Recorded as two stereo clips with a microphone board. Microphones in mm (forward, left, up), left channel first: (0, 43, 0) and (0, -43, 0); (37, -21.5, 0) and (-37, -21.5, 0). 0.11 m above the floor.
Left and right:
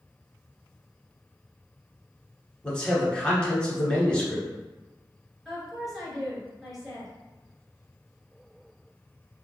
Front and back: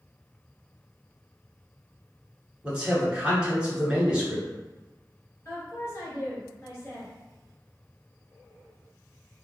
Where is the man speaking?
140° left, 1.3 m.